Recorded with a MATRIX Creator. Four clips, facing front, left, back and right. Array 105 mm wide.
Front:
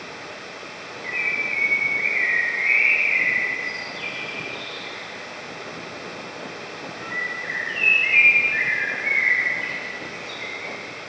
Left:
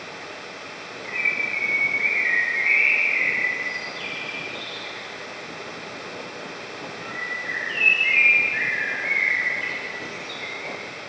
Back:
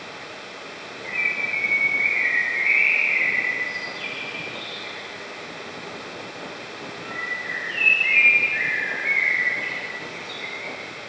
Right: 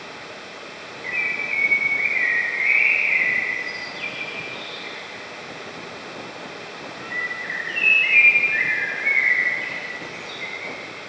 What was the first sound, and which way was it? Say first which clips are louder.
A bird: even, even; 65° right.